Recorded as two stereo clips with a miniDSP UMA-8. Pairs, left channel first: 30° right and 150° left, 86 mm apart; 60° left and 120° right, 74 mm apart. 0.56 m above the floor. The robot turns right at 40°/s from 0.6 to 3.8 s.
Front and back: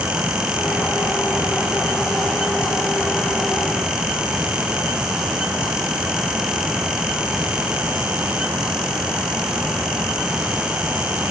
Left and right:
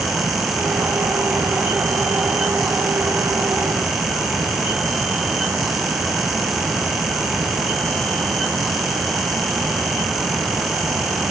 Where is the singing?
No singing in this recording.